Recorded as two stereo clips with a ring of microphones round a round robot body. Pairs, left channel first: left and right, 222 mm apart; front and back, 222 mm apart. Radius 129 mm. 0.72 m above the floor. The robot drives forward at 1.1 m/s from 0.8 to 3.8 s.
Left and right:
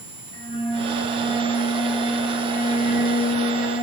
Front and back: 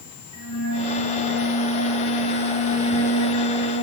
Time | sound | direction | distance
0.3 | a flute | 25° left | 9 m